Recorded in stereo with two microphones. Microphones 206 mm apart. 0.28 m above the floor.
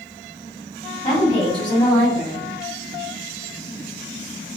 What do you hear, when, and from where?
1.0 s a woman speaking: 20° left (ahead or behind), 1.8 m